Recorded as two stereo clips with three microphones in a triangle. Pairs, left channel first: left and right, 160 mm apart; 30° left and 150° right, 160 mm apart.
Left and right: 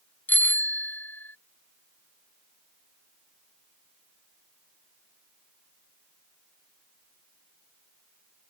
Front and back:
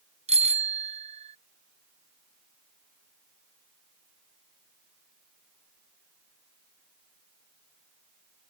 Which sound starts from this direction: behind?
A bicycle bell, at 0.3 s.